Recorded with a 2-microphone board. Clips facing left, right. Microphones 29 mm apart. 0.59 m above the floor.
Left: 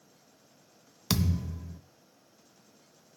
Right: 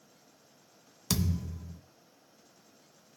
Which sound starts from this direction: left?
A thud, at 1.1 s.